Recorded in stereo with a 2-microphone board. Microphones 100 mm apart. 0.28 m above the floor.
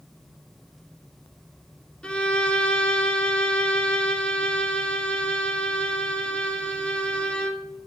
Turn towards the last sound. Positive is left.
turn(degrees=10)  # may be behind; listen again after turning